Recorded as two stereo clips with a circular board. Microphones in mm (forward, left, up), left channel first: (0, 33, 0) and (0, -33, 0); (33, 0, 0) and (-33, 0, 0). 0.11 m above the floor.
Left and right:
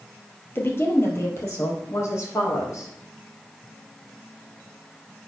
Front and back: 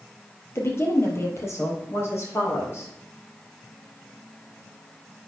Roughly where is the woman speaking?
Ahead left.